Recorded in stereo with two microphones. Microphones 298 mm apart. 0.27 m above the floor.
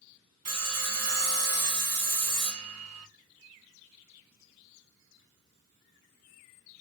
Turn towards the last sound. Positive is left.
turn(degrees=-55)  # may be behind; listen again after turning